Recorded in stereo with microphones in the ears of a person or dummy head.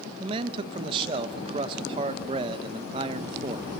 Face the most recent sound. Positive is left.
turn(degrees=-25)  # may be behind; listen again after turning